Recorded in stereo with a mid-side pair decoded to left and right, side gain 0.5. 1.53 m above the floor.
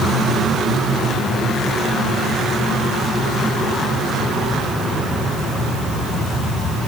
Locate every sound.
Only background noise.